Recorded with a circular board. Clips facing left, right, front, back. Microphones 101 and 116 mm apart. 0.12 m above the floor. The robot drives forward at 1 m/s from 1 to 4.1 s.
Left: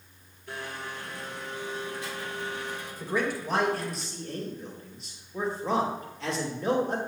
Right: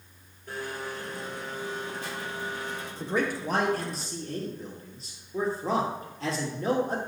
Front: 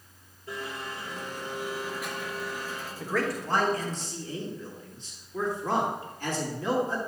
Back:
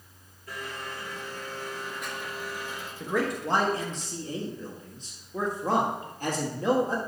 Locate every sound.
0.5 s a blender: 55° right, 2.5 m; by 2.9 s 115° right, 2.5 m
3.0 s a man speaking: 105° right, 2 m; by 7.0 s 135° right, 2.5 m